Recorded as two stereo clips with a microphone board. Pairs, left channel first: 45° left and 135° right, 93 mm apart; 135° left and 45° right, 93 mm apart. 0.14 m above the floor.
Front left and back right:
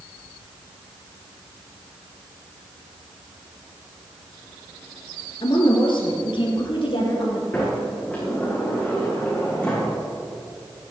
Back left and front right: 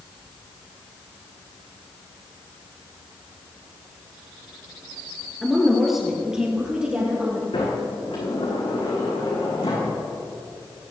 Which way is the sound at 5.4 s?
50° left.